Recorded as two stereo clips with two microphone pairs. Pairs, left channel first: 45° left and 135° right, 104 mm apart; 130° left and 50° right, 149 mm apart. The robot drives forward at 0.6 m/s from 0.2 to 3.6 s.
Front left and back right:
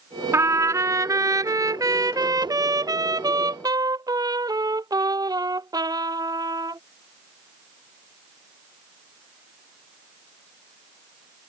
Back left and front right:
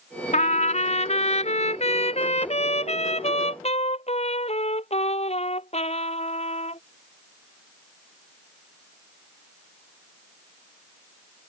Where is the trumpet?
165° left; by 6.8 s 175° left.